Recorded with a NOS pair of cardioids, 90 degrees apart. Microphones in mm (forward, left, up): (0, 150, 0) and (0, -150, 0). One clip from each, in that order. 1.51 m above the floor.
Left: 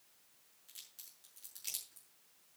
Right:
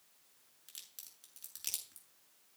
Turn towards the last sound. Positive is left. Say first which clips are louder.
# right 2 dB
turn(degrees=-55)